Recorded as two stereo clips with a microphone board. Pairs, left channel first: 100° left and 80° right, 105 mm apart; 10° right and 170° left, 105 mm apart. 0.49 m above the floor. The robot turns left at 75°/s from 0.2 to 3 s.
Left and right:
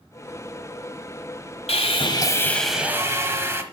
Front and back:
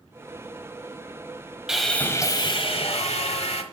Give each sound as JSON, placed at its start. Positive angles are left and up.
{"t": 1.7, "sound": "sawing", "azimuth_deg": 85, "distance_m": 1.1}